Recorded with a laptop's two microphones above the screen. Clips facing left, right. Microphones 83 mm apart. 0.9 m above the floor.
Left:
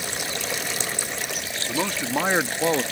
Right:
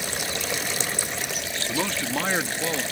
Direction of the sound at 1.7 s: 5° left (ahead or behind).